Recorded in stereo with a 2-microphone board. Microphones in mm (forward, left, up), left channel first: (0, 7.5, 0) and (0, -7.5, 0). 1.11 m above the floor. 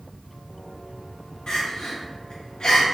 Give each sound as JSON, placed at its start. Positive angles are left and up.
{"t": 1.5, "sound": "crying", "side_deg": 80, "distance_m": 1.6}